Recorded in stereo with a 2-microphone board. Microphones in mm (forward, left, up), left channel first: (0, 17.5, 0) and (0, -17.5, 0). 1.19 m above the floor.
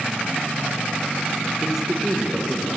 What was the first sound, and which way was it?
A man speaking, 15° right (ahead or behind).